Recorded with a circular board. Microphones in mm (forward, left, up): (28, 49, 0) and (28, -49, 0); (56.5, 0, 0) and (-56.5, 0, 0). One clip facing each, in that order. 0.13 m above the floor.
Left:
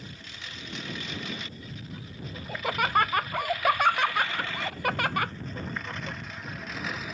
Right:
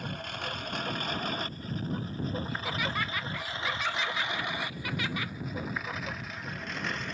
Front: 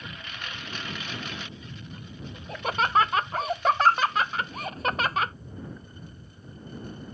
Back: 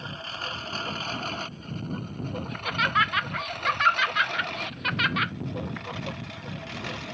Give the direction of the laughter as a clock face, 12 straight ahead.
10 o'clock.